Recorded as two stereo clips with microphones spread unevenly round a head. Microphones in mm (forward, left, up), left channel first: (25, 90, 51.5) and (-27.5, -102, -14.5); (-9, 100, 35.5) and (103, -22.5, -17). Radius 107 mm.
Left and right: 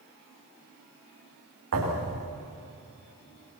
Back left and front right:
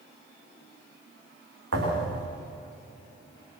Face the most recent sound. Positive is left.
turn(degrees=-80)